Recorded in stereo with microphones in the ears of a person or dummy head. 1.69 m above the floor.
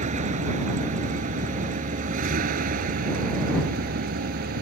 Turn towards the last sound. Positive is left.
turn(degrees=-60)  # may be behind; listen again after turning